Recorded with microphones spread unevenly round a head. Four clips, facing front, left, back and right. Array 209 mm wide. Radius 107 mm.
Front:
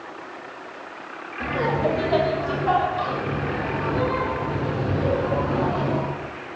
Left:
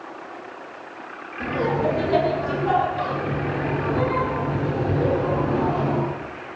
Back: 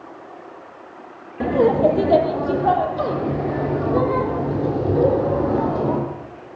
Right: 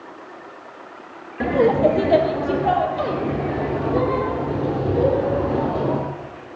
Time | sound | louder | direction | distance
1.4 | laughter | right 6 dB, back 7 dB | 145° right | 1.9 m